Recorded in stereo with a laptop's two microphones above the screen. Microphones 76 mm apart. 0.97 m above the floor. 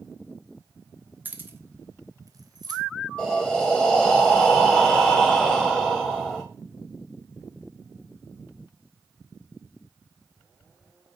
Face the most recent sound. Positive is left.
turn(degrees=15)  # may be behind; listen again after turning